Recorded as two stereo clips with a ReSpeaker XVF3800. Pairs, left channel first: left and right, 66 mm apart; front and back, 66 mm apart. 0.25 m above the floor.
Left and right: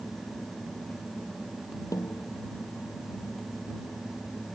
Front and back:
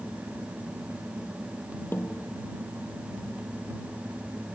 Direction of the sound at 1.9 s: 60° left.